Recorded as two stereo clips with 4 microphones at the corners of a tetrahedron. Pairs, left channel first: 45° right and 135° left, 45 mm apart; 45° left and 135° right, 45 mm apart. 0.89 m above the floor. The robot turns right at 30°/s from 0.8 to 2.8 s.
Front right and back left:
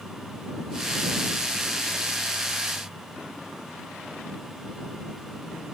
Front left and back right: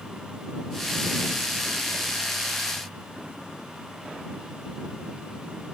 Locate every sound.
Only background noise.